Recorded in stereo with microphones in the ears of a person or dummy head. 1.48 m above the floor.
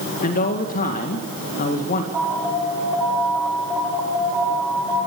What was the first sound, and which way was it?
A man speaking, 50° left (ahead or behind).